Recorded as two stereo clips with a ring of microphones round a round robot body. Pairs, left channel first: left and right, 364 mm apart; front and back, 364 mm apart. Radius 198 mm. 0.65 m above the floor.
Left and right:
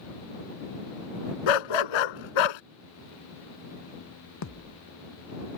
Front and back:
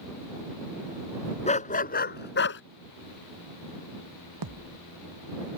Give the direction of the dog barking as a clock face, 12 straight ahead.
10 o'clock.